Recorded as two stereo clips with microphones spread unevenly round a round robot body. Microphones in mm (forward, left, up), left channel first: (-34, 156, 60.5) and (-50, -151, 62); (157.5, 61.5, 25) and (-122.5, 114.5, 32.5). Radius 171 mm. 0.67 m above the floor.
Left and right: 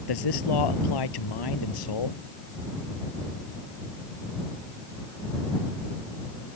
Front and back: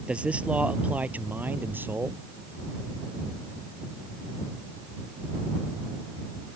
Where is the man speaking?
85° left.